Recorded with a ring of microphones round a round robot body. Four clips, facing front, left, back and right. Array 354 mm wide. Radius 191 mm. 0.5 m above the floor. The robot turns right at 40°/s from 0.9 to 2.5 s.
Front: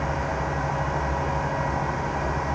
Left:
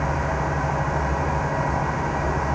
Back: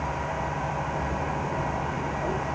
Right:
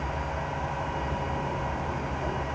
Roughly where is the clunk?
No clunk in this recording.